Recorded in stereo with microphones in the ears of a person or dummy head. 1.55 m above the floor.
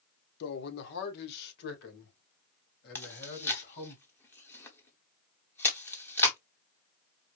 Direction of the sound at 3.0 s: 10° left (ahead or behind).